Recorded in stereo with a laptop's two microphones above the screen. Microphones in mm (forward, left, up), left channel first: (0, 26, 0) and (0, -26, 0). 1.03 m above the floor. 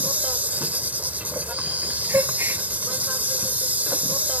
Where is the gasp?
45° right (ahead or behind).